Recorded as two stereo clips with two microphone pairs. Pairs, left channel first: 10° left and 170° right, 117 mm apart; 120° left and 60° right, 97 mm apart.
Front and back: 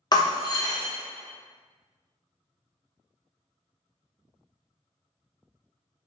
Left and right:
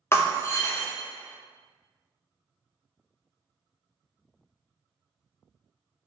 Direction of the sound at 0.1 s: 60° left.